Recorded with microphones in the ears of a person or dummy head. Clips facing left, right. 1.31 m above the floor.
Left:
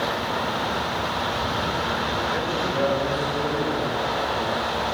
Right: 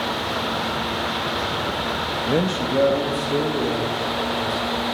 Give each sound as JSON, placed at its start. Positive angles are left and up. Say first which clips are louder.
{"t": 2.3, "sound": "a man speaking", "louder": "right 5 dB", "side_deg": -45, "distance_m": 1.3}